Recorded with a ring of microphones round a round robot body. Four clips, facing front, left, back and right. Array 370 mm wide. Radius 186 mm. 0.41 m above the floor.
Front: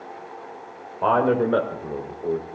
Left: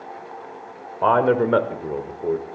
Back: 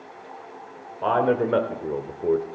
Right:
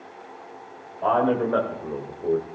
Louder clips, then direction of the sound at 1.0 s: Left 4 dB, front 2 dB; 75° left.